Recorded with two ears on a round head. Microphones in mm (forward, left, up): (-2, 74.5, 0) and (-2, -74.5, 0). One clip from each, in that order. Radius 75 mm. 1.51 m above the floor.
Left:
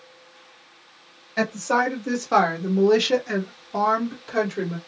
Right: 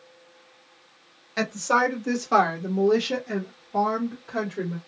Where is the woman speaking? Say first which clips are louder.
Even; 25° right (ahead or behind), 1.1 m; by 4.8 s 85° left, 1.2 m.